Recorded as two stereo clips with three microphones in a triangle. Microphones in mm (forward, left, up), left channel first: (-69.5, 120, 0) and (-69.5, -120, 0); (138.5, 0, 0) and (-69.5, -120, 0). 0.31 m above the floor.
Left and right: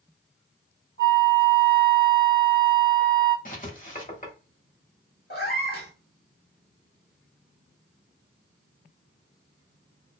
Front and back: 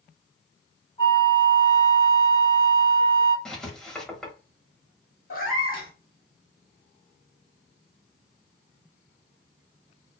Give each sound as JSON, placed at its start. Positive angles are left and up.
{"t": 1.0, "sound": "a flute", "azimuth_deg": 65, "distance_m": 1.6}
{"t": 3.5, "sound": "writing", "azimuth_deg": 115, "distance_m": 0.9}
{"t": 5.3, "sound": "a cat meowing", "azimuth_deg": 50, "distance_m": 1.5}